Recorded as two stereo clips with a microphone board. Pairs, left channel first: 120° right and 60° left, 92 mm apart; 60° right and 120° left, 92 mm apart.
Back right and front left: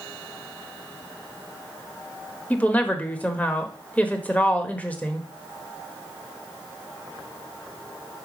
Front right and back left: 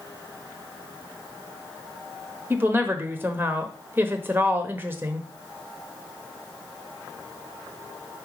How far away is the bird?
I don't hear a bird.